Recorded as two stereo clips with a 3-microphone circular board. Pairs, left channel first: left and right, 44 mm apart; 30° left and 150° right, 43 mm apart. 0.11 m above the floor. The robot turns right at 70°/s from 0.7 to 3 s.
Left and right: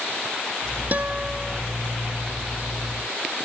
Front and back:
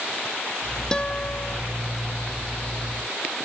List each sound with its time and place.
0.9 s a guitar: 45° right, 0.7 m; by 1.6 s 5° left, 0.7 m